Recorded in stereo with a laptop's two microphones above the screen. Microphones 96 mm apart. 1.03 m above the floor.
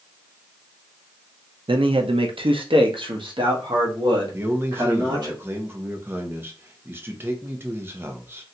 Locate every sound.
1.7 s a man speaking: 60° right (ahead or behind), 0.5 m; by 5.3 s 45° right (ahead or behind), 2 m
4.3 s a man speaking: 20° right (ahead or behind), 0.9 m